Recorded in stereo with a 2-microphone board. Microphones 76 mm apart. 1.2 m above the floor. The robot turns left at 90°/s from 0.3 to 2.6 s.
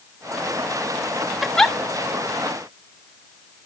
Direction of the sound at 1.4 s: 10° right (ahead or behind).